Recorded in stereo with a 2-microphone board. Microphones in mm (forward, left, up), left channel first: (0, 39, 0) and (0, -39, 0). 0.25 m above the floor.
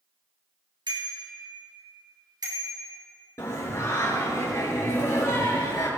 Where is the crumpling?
No crumpling in this recording.